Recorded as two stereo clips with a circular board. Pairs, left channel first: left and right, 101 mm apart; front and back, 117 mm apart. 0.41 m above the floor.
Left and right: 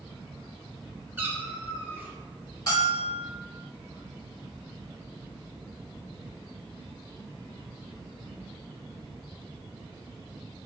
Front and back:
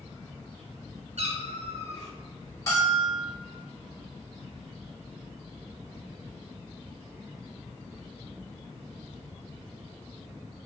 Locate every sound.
1.2 s a cat meowing: 160° right, 0.7 m
2.7 s a bell: 60° left, 2.0 m